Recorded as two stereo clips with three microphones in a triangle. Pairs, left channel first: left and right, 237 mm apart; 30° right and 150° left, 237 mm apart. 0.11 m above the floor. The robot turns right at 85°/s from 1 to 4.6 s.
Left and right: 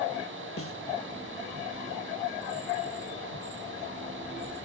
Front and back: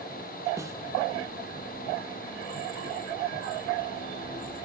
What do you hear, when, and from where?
0.6 s a snare drum: 75° left, 1.2 m